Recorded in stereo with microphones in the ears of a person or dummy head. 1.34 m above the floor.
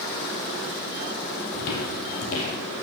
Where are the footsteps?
50° left (ahead or behind), 2 m; by 2.6 s 35° left (ahead or behind), 2.5 m.